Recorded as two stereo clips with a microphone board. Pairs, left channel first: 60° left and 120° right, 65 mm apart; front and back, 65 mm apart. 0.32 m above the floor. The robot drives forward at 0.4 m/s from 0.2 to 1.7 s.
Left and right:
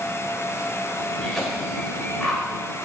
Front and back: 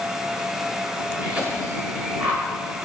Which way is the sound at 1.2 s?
130° left.